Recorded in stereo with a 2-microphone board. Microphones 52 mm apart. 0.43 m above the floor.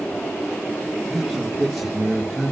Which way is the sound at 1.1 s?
5° left (ahead or behind).